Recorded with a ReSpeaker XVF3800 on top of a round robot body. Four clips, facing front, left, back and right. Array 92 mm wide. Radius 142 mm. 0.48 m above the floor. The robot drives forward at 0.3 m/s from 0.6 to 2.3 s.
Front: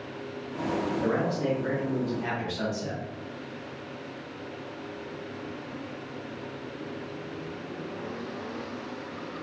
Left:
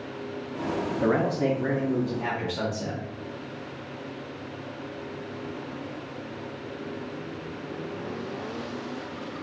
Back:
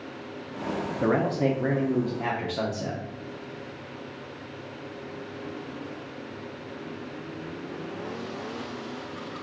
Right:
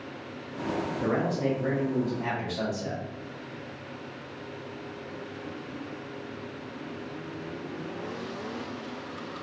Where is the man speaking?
140° left, 0.8 m; by 3.0 s 155° left, 1.0 m.